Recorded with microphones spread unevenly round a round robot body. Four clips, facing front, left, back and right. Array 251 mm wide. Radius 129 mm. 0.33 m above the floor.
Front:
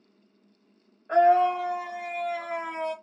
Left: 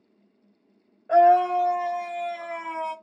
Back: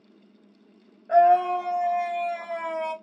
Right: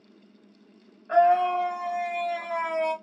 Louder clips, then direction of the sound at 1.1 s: Left 3 dB, back 2 dB; 120° left.